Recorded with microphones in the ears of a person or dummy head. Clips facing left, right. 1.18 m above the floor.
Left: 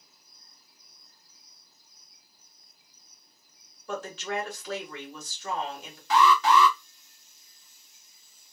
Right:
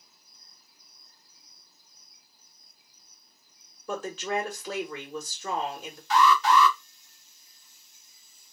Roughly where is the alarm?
Left.